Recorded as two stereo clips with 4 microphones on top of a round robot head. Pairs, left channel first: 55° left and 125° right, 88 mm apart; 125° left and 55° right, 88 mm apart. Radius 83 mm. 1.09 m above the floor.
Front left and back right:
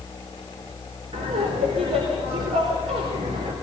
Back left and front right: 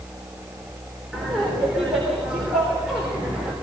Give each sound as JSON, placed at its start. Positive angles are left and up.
{"t": 1.1, "sound": "laughter", "azimuth_deg": -135, "distance_m": 4.0}